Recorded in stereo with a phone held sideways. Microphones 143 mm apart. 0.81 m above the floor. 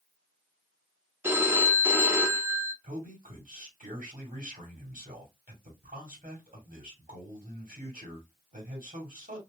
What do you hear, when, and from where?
1.2 s a phone ringing: 15° right (ahead or behind), 0.7 m
2.8 s a man speaking: 70° right (ahead or behind), 1.8 m